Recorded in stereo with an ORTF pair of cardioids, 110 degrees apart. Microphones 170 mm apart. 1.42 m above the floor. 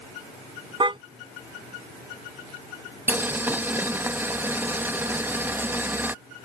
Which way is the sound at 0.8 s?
30° right.